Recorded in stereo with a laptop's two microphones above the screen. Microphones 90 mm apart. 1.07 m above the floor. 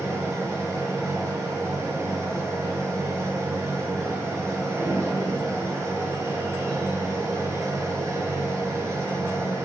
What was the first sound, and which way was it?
A machine running, 35° right (ahead or behind).